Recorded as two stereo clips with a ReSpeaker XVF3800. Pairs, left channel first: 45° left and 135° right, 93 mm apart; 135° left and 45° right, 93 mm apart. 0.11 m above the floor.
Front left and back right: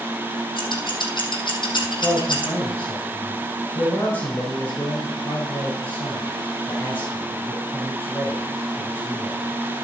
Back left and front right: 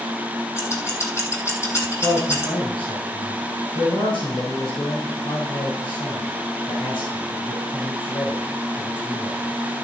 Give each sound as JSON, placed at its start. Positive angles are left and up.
{"t": 0.6, "sound": "scissors", "azimuth_deg": 75, "distance_m": 2.5}
{"t": 2.0, "sound": "a man speaking", "azimuth_deg": 115, "distance_m": 4.5}